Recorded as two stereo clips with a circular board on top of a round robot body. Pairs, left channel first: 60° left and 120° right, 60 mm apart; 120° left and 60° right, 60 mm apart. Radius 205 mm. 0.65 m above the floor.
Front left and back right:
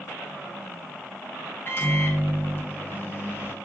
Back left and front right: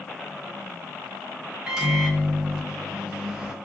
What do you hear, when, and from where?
1.7 s a microwave: 15° left, 1.2 m